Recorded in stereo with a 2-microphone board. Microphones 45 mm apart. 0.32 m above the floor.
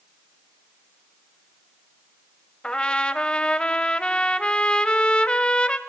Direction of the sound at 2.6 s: 20° left (ahead or behind).